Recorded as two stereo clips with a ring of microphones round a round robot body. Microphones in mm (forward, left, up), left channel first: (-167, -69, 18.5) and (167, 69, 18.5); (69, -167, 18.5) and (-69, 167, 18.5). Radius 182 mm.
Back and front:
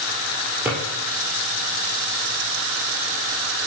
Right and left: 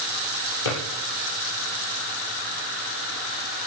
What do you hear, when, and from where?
0.7 s a drawer: 60° right, 8 m